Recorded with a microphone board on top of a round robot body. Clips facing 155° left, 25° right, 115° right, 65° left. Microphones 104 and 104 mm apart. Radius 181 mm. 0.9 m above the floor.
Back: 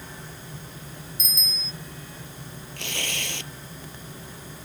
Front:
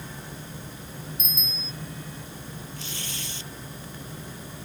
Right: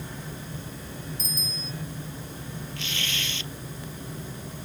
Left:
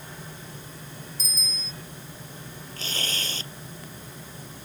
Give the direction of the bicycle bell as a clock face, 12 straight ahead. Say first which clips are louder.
Front 1 dB, right 3 dB; 10 o'clock.